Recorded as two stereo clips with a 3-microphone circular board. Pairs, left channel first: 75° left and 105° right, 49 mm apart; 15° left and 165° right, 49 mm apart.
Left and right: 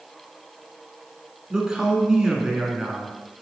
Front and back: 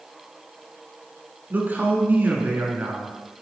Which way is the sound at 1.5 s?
170° right.